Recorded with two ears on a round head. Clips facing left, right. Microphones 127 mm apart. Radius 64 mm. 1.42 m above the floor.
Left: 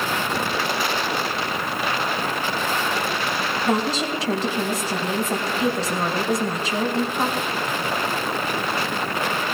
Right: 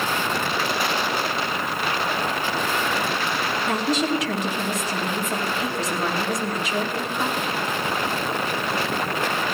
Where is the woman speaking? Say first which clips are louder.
Even; 30° left (ahead or behind), 2.5 m.